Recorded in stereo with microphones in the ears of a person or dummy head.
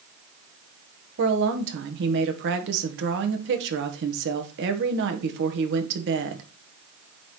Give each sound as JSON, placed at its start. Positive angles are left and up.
{"t": 1.2, "sound": "a woman speaking", "side_deg": -65, "distance_m": 1.5}